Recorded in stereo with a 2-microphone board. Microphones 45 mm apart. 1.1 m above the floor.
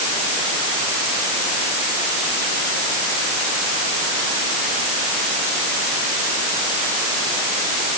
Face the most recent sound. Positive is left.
No sound to turn to.